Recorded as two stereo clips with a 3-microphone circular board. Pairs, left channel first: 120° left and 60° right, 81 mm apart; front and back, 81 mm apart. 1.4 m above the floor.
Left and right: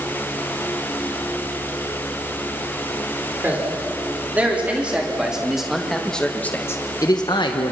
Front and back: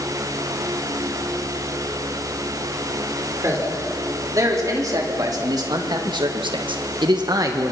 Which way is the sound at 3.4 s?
130° right.